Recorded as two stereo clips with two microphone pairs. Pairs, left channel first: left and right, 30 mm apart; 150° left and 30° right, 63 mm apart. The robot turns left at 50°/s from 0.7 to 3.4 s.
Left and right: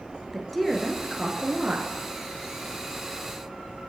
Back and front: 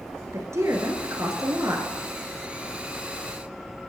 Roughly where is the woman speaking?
Ahead.